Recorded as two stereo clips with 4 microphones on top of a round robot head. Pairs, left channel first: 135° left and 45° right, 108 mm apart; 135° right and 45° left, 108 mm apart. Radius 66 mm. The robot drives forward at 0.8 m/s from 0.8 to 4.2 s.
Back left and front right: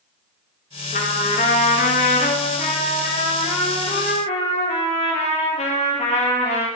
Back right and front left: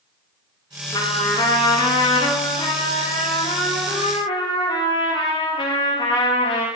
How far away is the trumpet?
About 3 m.